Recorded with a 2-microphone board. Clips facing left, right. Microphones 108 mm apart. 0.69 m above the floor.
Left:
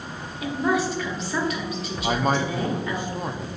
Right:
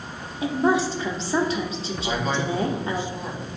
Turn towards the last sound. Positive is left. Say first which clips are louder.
# left 3 dB
turn(degrees=55)  # may be behind; listen again after turning